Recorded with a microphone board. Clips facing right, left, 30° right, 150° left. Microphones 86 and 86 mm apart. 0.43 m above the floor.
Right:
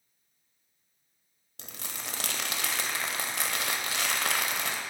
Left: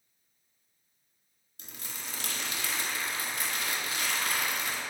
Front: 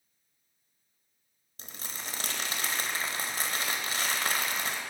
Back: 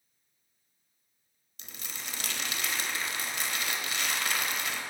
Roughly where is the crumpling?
Right.